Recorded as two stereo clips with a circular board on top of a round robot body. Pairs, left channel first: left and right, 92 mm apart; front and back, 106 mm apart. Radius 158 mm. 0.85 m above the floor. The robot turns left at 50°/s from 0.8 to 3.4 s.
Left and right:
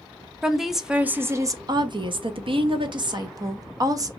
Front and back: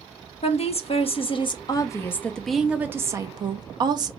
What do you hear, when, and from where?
0.4 s a woman speaking: 5° right, 0.8 m; by 4.1 s 135° right, 0.8 m